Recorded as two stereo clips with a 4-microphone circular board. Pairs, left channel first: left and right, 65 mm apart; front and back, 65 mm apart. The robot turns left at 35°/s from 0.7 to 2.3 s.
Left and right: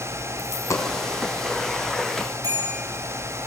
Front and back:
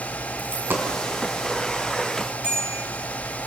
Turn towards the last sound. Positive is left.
turn(degrees=-105)